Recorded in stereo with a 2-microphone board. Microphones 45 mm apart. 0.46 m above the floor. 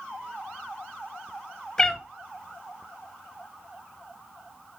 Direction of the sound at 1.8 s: 15° left (ahead or behind).